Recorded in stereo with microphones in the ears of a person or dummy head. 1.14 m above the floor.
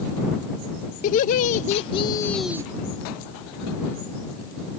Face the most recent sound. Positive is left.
turn(degrees=-20)  # may be behind; listen again after turning